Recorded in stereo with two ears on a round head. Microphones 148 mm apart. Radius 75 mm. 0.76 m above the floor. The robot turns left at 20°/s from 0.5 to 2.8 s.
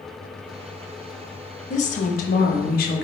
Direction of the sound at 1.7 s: 45° left (ahead or behind).